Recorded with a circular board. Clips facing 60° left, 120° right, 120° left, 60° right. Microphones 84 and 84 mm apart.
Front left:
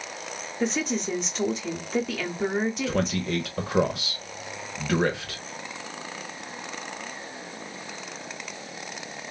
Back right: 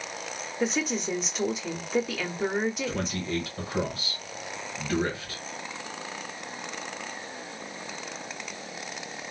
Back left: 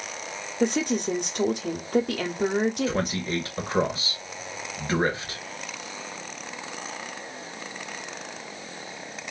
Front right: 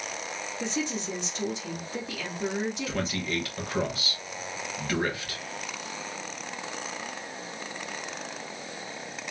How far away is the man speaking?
About 1.0 m.